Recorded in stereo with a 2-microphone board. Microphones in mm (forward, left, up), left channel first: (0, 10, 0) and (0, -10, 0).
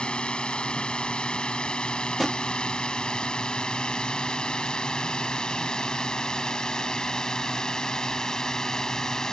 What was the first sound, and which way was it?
A drone, 55° left (ahead or behind).